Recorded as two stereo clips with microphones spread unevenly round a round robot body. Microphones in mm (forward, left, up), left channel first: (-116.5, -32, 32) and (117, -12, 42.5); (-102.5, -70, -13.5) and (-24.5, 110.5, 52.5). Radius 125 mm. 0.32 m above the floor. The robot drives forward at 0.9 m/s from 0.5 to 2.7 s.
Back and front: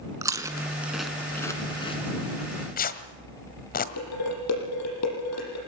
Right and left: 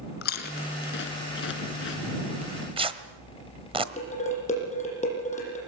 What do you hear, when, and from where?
0.2 s chewing: 75° right, 2 m; by 2.0 s 110° right, 2 m
2.4 s tearing paper: 130° left, 1.4 m; by 3.9 s 140° left, 1.5 m
4.0 s dishes clattering: 165° right, 9 m